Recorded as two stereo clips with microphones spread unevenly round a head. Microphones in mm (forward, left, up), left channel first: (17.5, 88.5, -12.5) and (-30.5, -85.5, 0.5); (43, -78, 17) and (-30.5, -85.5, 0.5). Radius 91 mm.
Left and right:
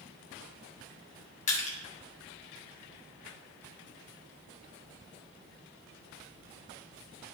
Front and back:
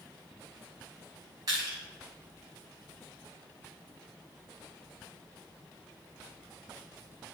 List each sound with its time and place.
1.5 s crushing: 125° left, 2 m